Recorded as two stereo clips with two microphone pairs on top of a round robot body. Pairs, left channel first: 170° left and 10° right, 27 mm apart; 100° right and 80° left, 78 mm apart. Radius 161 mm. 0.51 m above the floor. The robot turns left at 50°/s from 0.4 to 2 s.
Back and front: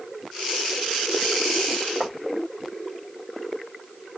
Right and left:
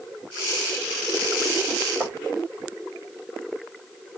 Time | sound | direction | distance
2.0 | writing | 30° left | 2.5 m